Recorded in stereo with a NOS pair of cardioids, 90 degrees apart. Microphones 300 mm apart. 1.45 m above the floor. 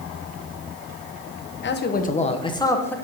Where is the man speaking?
40° left, 1.1 m; by 3.0 s 5° left, 1.3 m.